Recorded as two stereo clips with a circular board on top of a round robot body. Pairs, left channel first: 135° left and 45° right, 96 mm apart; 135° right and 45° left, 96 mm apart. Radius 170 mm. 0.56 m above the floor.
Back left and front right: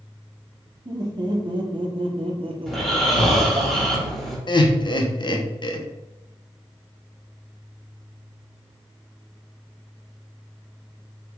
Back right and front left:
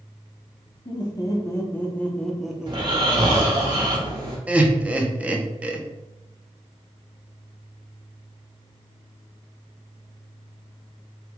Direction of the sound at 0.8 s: 90° right.